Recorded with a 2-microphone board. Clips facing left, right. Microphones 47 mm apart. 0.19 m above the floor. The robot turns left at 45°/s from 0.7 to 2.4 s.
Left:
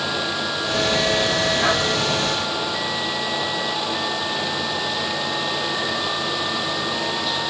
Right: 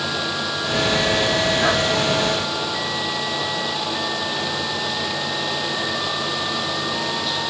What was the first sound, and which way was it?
Only background noise.